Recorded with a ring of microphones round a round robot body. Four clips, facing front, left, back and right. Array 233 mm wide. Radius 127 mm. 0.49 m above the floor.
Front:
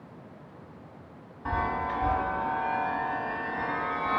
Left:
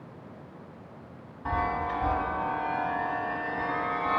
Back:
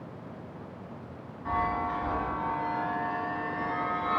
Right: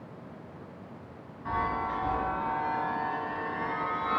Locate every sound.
1.4 s a chime: 50° left, 0.9 m